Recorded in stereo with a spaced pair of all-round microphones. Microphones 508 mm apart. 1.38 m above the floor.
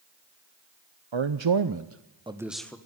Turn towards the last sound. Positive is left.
turn(degrees=5)  # may be behind; listen again after turning